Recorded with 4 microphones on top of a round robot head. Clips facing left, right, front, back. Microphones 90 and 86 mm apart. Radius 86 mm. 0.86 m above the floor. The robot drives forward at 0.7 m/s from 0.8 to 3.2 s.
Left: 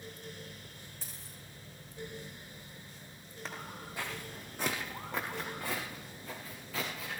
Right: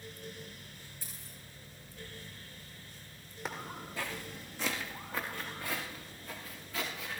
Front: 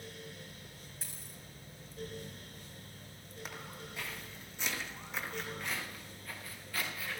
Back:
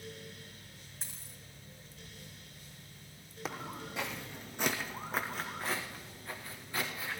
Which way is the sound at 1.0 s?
115° left.